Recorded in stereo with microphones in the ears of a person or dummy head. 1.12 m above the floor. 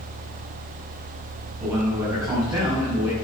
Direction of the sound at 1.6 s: 20° right (ahead or behind).